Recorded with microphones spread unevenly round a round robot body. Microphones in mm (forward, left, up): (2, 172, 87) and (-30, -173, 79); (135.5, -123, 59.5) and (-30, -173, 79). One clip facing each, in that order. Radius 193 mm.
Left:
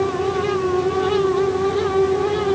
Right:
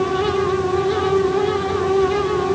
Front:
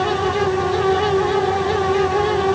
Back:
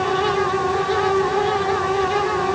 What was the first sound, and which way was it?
Only background noise.